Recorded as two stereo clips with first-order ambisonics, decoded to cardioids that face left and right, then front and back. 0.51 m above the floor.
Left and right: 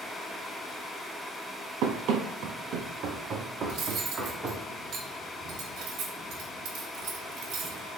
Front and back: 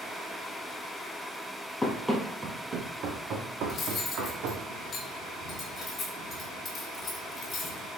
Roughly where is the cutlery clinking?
Ahead right.